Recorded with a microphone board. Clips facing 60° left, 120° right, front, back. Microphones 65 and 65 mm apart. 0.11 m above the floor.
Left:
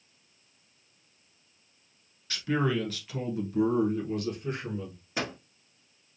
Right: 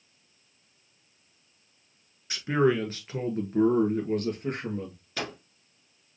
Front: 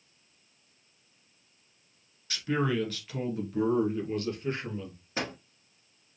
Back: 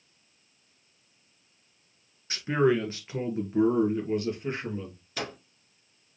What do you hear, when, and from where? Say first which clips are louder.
2.3 s a man speaking: right 4 dB, back 5 dB; 165° right, 1.3 m; by 5.0 s 115° right, 2 m
5.2 s a microwave: left 1 dB, front 1 dB; 15° left, 1.2 m